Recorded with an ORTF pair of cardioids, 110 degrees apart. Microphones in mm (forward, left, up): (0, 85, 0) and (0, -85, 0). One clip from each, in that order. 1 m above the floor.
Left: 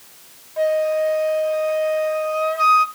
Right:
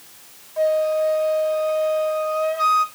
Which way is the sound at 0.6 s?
10° left.